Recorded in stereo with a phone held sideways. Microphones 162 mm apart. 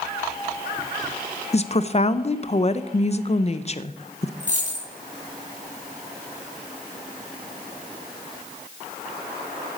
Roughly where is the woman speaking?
Left.